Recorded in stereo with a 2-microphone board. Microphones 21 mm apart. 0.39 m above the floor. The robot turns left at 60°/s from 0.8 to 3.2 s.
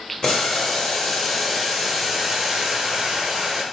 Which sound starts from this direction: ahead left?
Boiling, at 0.2 s.